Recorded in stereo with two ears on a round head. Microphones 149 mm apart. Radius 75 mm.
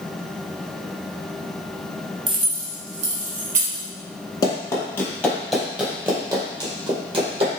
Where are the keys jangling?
30° right (ahead or behind), 0.8 m; by 3.9 s 55° right (ahead or behind), 1.6 m.